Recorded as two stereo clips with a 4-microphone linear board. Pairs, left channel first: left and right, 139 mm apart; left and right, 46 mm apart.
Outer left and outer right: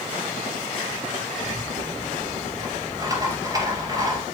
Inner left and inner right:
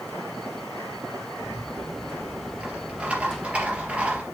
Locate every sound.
1.4 s a rattle: 25° right (ahead or behind), 3 m